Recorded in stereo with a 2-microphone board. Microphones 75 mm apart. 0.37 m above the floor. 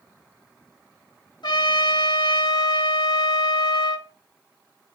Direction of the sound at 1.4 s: 70° left (ahead or behind).